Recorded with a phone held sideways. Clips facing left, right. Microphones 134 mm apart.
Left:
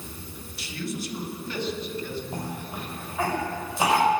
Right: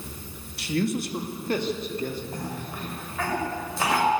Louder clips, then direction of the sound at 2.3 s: Even; 20° left (ahead or behind).